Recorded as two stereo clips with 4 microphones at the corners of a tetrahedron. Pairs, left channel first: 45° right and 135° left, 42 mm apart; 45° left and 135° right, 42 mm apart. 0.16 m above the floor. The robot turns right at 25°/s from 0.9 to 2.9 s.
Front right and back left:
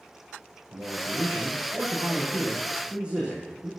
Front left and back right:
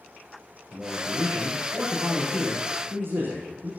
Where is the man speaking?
160° left, 6 m; by 3.7 s 150° right, 6 m.